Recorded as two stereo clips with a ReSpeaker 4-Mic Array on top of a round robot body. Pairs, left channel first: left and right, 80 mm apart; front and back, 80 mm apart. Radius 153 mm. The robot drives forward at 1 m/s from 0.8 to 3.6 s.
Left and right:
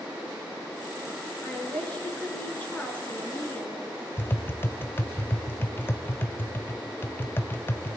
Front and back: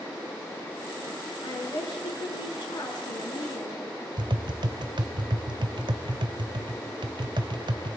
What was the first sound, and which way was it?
A woman speaking, 20° left.